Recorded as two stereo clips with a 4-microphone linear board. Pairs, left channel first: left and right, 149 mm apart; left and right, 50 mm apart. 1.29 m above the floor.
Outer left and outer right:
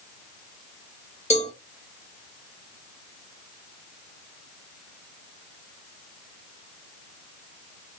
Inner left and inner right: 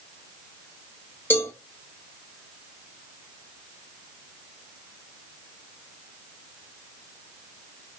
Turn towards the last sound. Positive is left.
turn(degrees=50)  # may be behind; listen again after turning